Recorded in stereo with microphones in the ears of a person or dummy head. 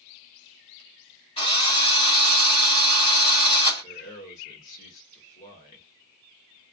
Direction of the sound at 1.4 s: 30° left (ahead or behind).